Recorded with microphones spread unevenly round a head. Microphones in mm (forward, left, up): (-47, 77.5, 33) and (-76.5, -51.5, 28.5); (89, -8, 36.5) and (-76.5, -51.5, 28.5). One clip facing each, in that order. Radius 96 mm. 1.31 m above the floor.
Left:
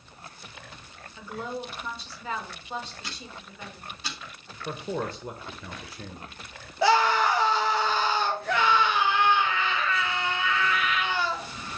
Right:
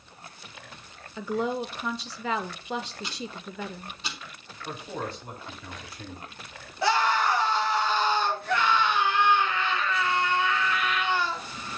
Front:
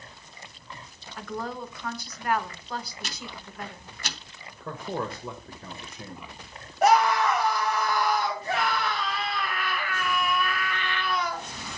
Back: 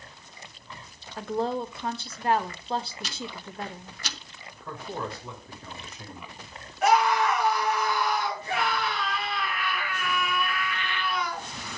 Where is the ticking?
25° right, 0.9 m.